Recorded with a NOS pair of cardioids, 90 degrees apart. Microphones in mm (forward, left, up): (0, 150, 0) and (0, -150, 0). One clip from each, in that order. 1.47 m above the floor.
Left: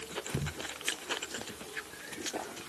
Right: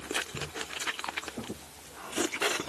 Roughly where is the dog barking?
I don't hear a dog barking.